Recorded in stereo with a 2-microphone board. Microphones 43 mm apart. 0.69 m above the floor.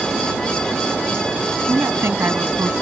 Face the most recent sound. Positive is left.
turn(degrees=-70)  # may be behind; listen again after turning